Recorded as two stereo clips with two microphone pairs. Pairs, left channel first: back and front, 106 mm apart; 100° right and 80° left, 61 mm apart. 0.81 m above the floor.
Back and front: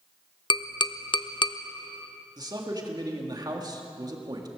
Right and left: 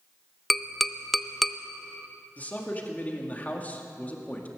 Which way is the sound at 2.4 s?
40° right.